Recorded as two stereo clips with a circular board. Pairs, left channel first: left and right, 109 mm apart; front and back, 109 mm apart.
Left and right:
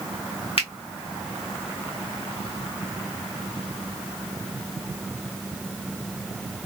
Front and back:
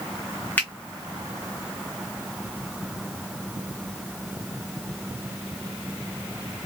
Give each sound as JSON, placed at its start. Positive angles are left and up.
{"t": 0.6, "sound": "a finger snap", "azimuth_deg": 70, "distance_m": 1.4}